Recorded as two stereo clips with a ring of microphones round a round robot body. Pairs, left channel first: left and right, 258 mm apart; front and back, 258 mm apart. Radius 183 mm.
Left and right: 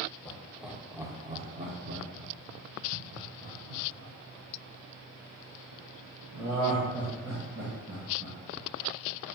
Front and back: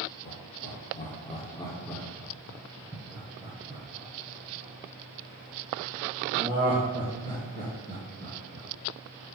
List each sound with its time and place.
0.2 s laughter: 10° left, 1.1 m; by 8.7 s 130° right, 4 m